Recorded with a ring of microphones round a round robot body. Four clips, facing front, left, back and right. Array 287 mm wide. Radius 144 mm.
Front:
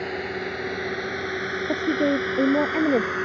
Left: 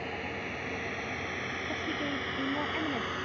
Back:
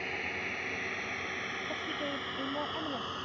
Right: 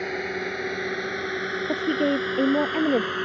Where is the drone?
50° right; by 3.3 s 35° right.